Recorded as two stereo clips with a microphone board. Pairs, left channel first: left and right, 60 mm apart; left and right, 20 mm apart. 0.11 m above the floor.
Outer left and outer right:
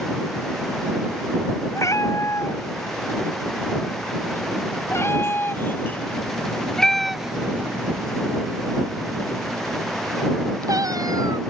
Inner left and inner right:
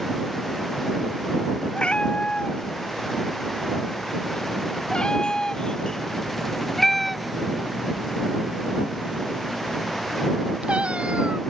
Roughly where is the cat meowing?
Left.